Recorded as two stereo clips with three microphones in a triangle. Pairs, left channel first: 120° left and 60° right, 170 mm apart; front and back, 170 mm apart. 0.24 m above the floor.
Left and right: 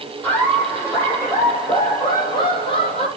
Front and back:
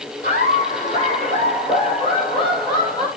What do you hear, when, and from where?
0.2 s laughter: 40° left, 7 m; by 3.1 s 65° left, 6 m